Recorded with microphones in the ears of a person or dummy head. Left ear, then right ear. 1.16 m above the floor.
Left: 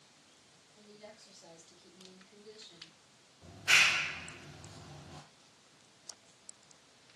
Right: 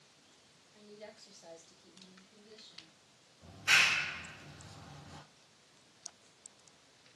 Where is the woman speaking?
50° right (ahead or behind), 0.9 m; by 3.0 s 55° left (ahead or behind), 1.0 m.